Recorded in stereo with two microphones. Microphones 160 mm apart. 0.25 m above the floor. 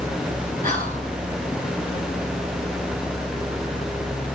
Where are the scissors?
No scissors in this recording.